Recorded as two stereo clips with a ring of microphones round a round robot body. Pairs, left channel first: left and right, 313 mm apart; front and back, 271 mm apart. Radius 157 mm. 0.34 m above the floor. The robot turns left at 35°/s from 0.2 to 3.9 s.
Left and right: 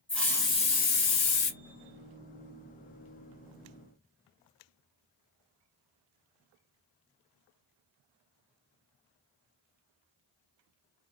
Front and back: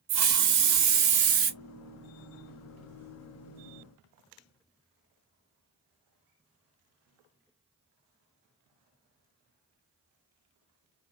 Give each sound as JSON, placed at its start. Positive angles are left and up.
{"t": 0.1, "sound": "a hiss", "azimuth_deg": 175, "distance_m": 0.8}